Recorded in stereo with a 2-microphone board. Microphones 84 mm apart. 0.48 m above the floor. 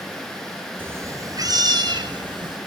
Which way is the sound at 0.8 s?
25° right (ahead or behind).